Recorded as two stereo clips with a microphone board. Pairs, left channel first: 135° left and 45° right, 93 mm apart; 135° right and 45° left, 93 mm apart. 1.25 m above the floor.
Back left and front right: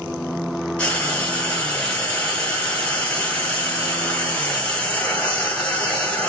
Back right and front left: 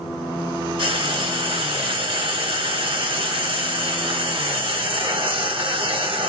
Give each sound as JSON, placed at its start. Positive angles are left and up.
{"t": 0.8, "sound": "frying", "azimuth_deg": 55, "distance_m": 1.7}